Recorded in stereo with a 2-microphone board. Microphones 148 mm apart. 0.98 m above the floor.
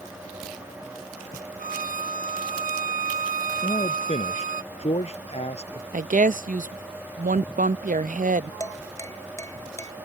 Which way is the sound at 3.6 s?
45° left (ahead or behind).